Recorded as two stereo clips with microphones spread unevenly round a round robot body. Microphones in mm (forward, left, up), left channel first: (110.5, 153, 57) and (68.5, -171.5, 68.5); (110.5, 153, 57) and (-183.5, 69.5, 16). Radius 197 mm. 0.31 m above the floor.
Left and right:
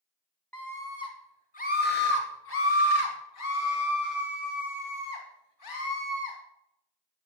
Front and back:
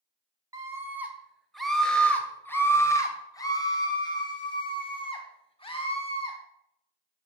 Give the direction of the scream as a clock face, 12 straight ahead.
7 o'clock.